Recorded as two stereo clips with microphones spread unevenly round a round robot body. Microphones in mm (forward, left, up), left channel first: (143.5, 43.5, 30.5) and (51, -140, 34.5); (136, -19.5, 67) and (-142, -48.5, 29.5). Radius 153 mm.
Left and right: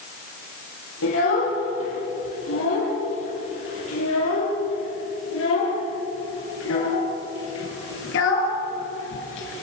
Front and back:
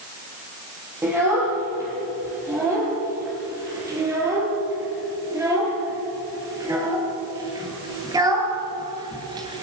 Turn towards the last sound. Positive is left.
turn(degrees=110)